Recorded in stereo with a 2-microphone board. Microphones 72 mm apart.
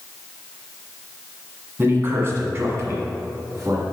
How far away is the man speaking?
About 1.6 m.